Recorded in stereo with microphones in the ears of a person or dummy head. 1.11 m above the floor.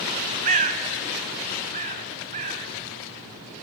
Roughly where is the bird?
Right.